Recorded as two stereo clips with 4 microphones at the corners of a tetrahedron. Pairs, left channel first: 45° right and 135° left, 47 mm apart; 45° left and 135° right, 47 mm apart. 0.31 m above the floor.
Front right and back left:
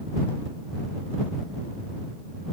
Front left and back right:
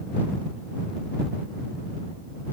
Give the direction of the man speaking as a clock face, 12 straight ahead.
No man speaking in this recording.